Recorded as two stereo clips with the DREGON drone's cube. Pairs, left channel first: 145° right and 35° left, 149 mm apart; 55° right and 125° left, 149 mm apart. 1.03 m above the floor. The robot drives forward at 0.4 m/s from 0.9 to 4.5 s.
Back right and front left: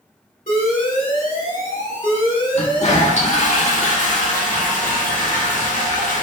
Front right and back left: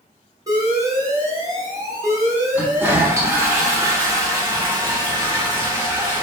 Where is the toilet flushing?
160° right, 0.7 m; by 6.2 s 170° right, 1.4 m.